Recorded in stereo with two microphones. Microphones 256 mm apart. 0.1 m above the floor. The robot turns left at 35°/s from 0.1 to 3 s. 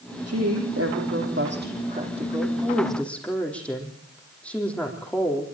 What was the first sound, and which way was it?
A woman speaking, 90° right.